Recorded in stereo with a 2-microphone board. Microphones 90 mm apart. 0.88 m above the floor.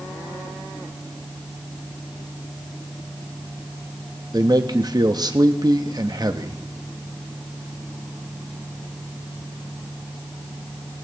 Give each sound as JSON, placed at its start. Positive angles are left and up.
{"t": 4.3, "sound": "a man speaking", "side_deg": -45, "distance_m": 0.8}